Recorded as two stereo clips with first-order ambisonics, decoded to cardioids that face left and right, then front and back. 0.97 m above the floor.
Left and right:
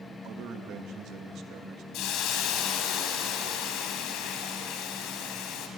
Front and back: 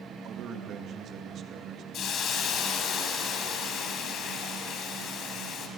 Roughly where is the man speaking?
Behind right.